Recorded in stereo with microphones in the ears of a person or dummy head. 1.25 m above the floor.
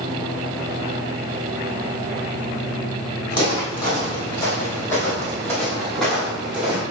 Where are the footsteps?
30° left (ahead or behind), 3 m; by 6.8 s 5° right (ahead or behind), 3.5 m.